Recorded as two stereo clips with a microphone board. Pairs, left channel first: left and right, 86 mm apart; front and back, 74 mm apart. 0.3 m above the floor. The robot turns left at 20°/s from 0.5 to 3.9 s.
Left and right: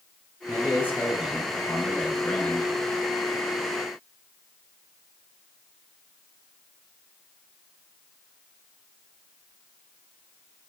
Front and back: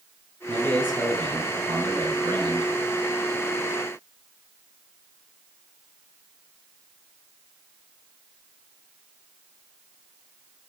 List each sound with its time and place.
0.5 s a man speaking: 155° right, 4.5 m; by 2.7 s 160° left, 4.5 m